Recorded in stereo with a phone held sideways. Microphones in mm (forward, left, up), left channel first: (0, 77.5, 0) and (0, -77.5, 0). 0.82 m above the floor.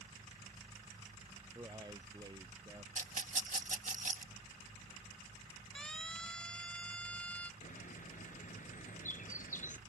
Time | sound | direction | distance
1.6 | a man speaking | 25° right (ahead or behind) | ?
3.0 | a rattle | 55° right (ahead or behind) | ?
5.8 | a siren | 5° left (ahead or behind) | ?
7.6 | a bird | 55° left (ahead or behind) | ?